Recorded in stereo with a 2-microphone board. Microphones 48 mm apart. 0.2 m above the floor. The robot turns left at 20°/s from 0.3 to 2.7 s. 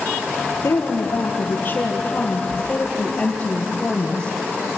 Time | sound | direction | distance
0.6 | a woman speaking | 60° left | 4.5 m